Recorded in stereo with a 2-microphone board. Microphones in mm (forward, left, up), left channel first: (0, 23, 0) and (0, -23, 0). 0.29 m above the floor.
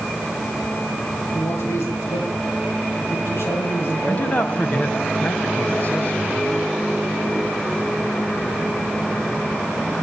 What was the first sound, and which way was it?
A man speaking, 65° left (ahead or behind).